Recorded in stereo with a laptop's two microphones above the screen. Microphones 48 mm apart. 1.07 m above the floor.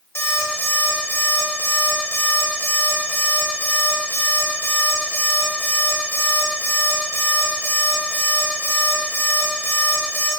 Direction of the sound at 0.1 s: 75° left (ahead or behind).